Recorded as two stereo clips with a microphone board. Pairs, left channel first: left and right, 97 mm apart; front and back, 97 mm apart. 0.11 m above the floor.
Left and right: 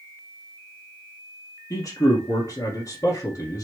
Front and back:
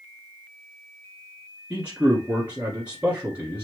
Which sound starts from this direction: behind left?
A man speaking, at 1.7 s.